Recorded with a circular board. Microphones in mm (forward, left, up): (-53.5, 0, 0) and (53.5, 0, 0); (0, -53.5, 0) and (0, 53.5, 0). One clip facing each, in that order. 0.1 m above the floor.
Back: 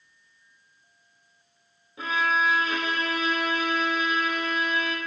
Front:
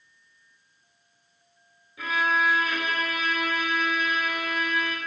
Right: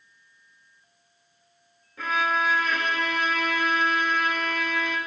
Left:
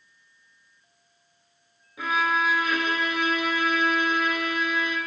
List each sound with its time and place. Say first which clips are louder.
2.0 s a violin: even, left 1 dB; 160° left, 0.7 m